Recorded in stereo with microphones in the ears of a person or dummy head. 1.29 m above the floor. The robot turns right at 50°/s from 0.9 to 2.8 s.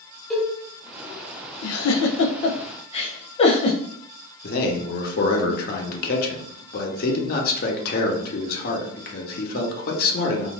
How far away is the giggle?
About 0.5 m.